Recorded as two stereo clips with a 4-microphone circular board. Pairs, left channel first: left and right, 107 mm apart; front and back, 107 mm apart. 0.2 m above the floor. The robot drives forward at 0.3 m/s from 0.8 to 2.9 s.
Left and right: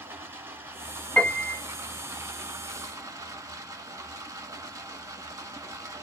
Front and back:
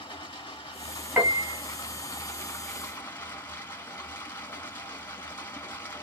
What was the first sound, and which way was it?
Running water, 30° right.